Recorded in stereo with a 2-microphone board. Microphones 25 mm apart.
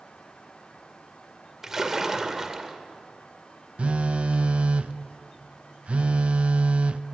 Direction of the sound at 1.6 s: 20° right (ahead or behind).